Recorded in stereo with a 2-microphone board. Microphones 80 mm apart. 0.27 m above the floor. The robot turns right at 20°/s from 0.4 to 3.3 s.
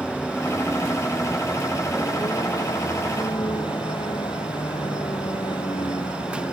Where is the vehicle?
20° left; by 6.5 s 80° left.